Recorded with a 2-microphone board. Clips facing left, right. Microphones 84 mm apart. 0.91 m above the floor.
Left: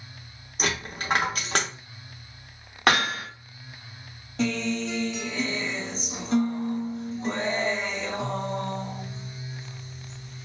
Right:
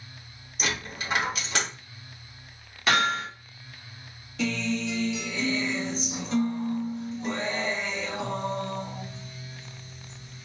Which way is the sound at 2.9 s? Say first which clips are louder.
Left 1 dB; 60° left (ahead or behind).